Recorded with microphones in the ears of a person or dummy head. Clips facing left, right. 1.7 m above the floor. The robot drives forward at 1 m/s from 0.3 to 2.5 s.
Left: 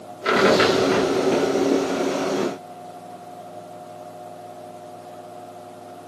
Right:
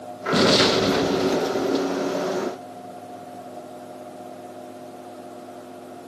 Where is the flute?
I don't hear a flute.